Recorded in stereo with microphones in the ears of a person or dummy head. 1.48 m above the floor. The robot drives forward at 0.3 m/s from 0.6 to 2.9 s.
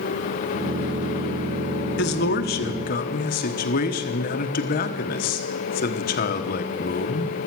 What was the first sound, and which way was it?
A man speaking, 55° left (ahead or behind).